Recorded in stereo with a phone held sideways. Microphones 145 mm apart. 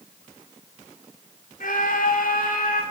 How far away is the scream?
About 3 m.